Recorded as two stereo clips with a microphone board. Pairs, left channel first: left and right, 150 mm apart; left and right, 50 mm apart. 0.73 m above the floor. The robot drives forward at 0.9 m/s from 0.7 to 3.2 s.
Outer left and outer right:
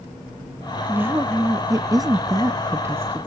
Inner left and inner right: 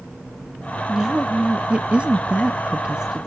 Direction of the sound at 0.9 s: 15° right (ahead or behind).